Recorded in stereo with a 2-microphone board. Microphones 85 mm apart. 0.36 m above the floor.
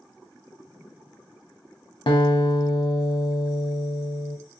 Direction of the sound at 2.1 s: 75° left (ahead or behind).